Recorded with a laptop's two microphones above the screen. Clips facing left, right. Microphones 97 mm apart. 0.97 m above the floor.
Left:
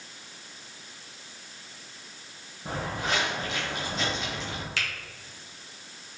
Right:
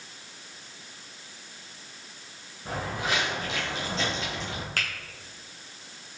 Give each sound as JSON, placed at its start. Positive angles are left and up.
{"t": 2.6, "sound": "footsteps", "side_deg": 10, "distance_m": 1.2}
{"t": 4.8, "sound": "a finger snap", "side_deg": -45, "distance_m": 0.9}